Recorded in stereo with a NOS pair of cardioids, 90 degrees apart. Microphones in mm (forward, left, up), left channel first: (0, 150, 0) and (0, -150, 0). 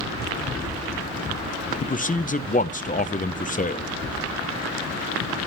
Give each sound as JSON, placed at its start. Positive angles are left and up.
{"t": 1.8, "sound": "a man speaking", "azimuth_deg": 30, "distance_m": 0.7}